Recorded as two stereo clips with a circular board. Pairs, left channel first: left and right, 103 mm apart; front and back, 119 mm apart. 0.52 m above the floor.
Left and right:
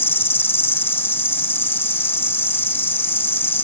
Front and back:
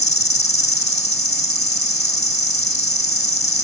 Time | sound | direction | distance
0.0 | an insect | 20° left | ?